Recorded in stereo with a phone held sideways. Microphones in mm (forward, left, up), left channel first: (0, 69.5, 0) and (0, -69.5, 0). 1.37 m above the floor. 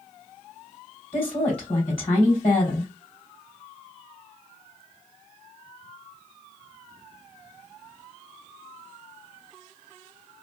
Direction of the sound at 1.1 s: 45° left (ahead or behind).